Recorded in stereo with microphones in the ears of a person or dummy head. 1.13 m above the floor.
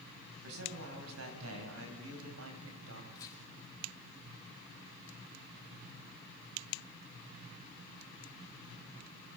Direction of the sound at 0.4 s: 80° right.